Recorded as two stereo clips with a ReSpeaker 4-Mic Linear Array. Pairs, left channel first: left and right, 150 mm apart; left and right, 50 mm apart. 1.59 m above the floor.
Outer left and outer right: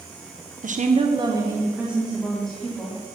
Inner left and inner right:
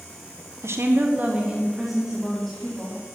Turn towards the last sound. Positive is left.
turn(degrees=10)  # may be behind; listen again after turning